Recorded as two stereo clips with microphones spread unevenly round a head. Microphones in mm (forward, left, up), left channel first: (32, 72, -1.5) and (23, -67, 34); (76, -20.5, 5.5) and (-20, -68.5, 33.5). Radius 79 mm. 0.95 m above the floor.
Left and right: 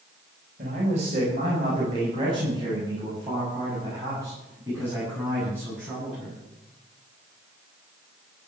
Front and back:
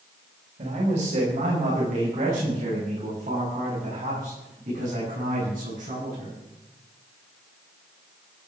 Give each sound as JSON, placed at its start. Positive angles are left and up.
{"t": 0.6, "sound": "a man speaking", "azimuth_deg": -145, "distance_m": 5.5}